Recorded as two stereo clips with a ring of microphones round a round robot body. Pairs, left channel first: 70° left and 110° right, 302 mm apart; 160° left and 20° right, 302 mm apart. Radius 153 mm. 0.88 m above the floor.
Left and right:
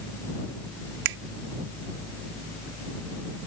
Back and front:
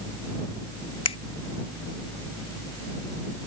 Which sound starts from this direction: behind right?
A finger snap, at 1.1 s.